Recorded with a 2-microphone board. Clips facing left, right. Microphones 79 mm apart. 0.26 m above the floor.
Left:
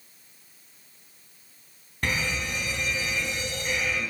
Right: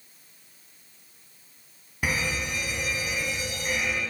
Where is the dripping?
I don't hear dripping.